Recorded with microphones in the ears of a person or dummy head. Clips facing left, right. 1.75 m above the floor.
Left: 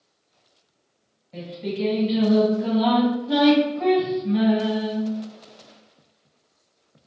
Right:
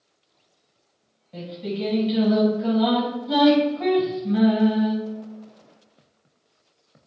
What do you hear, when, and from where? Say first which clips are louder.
1.3 s singing: left 1 dB; 15° right (ahead or behind), 1.2 m